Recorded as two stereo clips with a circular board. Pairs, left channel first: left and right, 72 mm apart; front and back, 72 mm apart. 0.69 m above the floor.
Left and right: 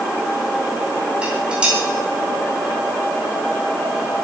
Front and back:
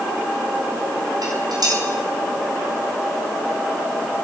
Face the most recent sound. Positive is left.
turn(degrees=-165)